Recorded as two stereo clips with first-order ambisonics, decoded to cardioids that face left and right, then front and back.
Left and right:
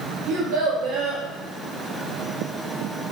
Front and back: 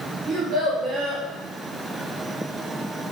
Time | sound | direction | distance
0.3 | a child speaking | 110° right | 0.7 m